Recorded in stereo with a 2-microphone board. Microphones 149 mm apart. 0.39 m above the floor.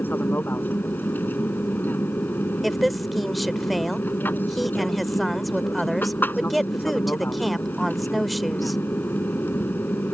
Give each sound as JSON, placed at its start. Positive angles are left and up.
{"t": 0.0, "sound": "an aircraft", "side_deg": 15}
{"t": 2.6, "sound": "a woman speaking", "side_deg": 0}